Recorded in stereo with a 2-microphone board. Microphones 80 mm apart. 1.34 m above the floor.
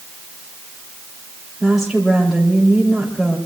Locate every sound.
1.6 s a woman speaking: centre (ahead or behind), 3 m